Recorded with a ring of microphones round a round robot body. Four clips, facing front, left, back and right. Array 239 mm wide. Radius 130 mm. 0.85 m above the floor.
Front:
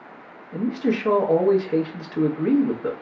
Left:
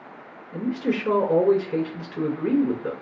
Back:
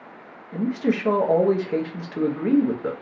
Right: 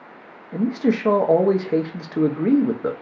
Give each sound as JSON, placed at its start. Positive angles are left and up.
{"t": 0.5, "sound": "a man speaking", "azimuth_deg": -95, "distance_m": 0.7}